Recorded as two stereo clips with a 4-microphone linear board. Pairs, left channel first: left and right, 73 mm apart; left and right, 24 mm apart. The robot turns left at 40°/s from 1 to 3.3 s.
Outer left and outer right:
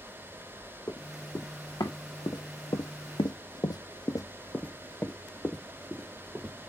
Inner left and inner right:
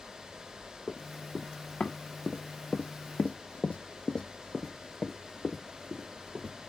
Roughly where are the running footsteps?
Left.